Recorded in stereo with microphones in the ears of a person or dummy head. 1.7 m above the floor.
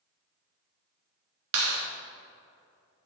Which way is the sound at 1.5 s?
70° right (ahead or behind).